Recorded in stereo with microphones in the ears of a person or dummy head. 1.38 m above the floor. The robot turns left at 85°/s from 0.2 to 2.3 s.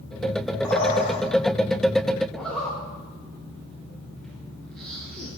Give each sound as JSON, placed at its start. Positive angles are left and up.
{"t": 0.6, "sound": "a bird", "azimuth_deg": 175, "distance_m": 1.5}
{"t": 2.3, "sound": "a zipper", "side_deg": 5, "distance_m": 0.6}